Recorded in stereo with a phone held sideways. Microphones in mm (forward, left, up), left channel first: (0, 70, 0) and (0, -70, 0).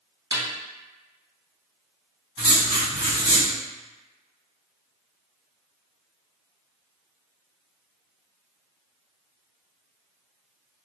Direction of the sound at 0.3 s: 30° right (ahead or behind).